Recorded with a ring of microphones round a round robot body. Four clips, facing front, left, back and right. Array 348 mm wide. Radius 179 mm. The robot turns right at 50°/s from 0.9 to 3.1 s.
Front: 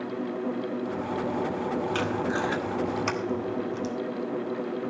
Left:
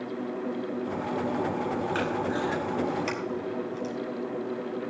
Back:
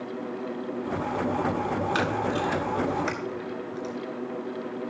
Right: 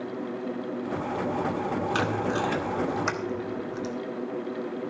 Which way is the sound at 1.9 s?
100° right.